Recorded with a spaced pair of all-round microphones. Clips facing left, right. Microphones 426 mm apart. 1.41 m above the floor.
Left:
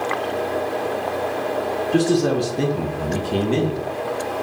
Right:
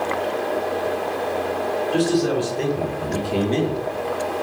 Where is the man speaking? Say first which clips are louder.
Left 2 dB; 60° left (ahead or behind), 0.7 m; by 3.9 s 20° left (ahead or behind), 0.9 m.